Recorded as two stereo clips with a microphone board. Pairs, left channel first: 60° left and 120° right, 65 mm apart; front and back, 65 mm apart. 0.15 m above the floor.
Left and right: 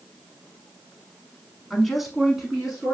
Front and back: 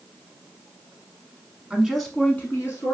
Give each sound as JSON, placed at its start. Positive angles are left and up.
{"t": 1.7, "sound": "a woman speaking", "azimuth_deg": 145, "distance_m": 1.1}